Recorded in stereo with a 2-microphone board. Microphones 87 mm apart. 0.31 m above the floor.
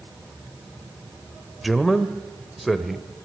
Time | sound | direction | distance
1.6 | a man speaking | centre (ahead or behind) | 0.9 m